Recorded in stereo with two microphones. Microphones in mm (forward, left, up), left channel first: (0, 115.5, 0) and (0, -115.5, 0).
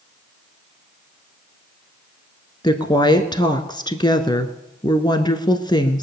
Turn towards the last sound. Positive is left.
turn(degrees=20)  # may be behind; listen again after turning